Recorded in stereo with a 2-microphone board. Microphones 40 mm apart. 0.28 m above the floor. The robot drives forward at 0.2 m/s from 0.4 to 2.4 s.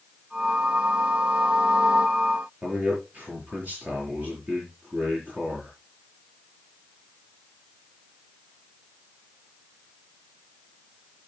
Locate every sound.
2.6 s a man speaking: 40° right (ahead or behind), 6 m